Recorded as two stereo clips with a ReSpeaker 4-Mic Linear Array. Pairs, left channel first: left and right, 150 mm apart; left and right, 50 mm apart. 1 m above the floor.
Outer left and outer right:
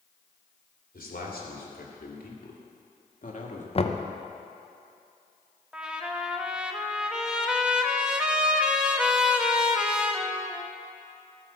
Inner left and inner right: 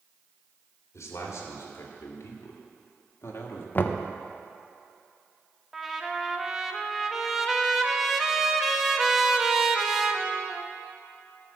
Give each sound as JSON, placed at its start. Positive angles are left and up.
{"t": 0.9, "sound": "a man speaking", "side_deg": 75, "distance_m": 2.5}
{"t": 3.8, "sound": "knocking", "side_deg": 40, "distance_m": 0.6}
{"t": 5.7, "sound": "a trumpet", "side_deg": -5, "distance_m": 0.8}